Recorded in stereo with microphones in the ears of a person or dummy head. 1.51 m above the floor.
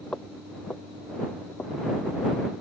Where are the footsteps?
5° left (ahead or behind); by 2.1 s 10° left (ahead or behind).